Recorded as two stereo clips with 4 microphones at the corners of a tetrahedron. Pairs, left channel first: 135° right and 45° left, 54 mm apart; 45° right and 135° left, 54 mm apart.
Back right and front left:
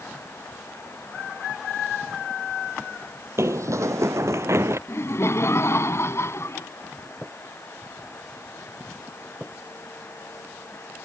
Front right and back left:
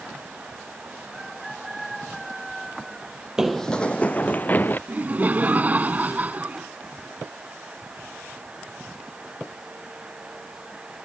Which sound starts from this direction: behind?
Laughter, at 4.9 s.